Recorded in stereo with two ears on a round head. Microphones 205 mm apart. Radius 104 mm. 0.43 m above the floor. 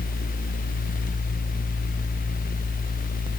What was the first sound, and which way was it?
Only background noise.